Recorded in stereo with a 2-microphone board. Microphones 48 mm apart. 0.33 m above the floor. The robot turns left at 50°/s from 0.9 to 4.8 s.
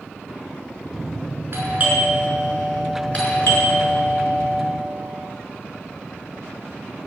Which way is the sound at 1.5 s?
45° right (ahead or behind).